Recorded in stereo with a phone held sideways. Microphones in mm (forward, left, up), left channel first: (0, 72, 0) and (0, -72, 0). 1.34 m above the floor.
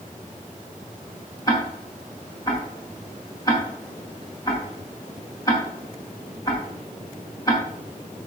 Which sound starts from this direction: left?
Ticking, at 1.5 s.